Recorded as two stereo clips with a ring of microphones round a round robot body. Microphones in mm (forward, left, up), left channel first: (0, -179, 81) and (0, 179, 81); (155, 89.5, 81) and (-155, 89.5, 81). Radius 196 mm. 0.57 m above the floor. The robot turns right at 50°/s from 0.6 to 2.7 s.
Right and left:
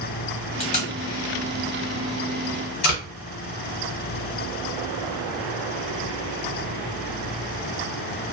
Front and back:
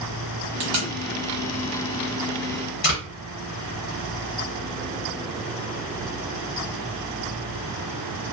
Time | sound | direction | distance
0.6 | tape being pulled | 165° right | 1.4 m